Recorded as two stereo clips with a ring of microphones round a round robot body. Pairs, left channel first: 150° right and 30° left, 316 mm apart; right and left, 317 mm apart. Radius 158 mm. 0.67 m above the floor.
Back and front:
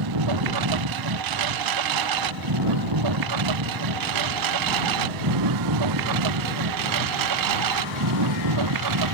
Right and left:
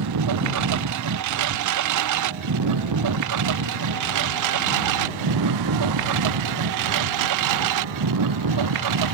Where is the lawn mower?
50° left; by 9.2 s 60° left.